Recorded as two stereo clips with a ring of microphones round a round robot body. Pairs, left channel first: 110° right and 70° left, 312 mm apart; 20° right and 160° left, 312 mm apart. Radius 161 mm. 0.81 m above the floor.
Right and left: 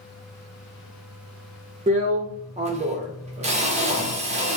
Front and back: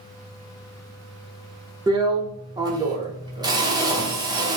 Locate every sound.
1.9 s a drill: 100° left, 0.7 m